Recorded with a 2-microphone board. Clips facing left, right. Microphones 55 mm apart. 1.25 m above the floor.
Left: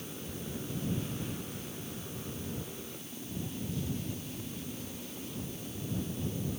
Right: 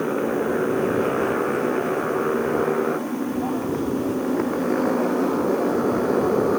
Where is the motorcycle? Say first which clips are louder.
Right 21 dB; 70° right (ahead or behind); by 6.6 s 80° right.